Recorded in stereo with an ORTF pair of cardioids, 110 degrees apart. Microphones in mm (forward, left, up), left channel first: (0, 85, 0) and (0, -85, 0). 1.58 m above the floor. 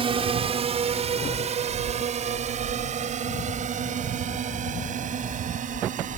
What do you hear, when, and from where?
0.0 s a drone: 35° right; by 6.2 s 50° right